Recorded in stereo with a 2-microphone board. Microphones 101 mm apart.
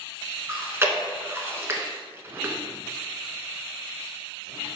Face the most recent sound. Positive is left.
turn(degrees=-25)  # may be behind; listen again after turning